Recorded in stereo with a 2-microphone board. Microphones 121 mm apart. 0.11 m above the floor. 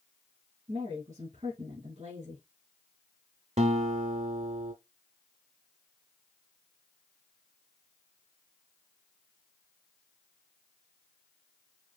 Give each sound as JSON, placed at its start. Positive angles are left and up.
{"t": 0.7, "sound": "a woman speaking", "side_deg": -65, "distance_m": 3.0}
{"t": 3.6, "sound": "a guitar", "side_deg": -65, "distance_m": 1.1}